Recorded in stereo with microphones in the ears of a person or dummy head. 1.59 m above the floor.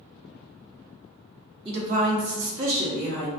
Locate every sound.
1.6 s a woman speaking: 25° right (ahead or behind), 0.9 m; by 3.3 s 60° right (ahead or behind), 1.0 m